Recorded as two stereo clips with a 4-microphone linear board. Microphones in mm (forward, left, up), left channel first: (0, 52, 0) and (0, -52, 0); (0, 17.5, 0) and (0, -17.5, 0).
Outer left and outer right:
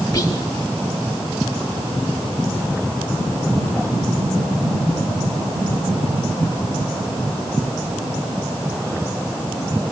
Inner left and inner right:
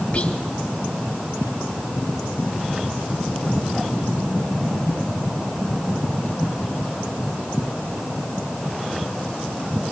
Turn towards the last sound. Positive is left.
turn(degrees=35)  # may be behind; listen again after turning